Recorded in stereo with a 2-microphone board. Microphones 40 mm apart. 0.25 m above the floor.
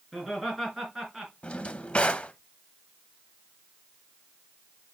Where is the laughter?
Centre (ahead or behind), 3.5 m; by 1.3 s 15° right (ahead or behind), 3 m.